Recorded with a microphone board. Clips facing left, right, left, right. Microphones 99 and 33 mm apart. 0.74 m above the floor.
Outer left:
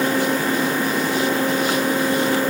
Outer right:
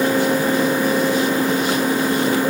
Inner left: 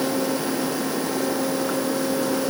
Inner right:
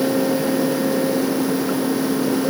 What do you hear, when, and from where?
Only background noise.